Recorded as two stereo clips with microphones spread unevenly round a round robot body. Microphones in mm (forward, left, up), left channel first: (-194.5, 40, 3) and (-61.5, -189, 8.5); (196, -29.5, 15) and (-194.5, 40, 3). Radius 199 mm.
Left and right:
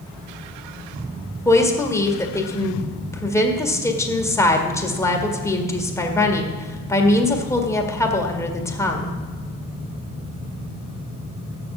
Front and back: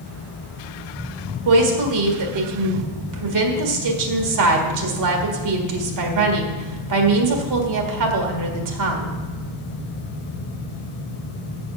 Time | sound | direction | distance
1.4 | a woman speaking | 165° right | 1.7 m